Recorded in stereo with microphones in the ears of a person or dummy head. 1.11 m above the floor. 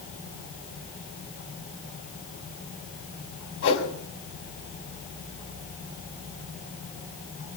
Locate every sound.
3.6 s a whoosh: 75° left (ahead or behind), 5.5 m